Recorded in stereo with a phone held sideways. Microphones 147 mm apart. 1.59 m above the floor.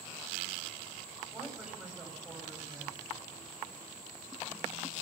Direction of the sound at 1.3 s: 5° right (ahead or behind).